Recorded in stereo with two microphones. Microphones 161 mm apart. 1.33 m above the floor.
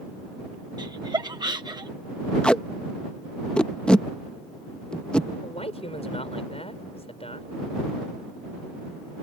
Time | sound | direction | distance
0.8 | laughter | 25° right (ahead or behind) | ?
2.4 | tape being pulled | 5° left (ahead or behind) | ?
5.4 | a man speaking | 40° left (ahead or behind) | ?